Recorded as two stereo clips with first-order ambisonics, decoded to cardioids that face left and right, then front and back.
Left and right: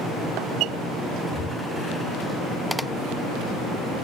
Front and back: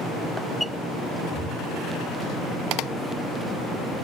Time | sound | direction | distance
1.3 | breathing | 135° left | 3.5 m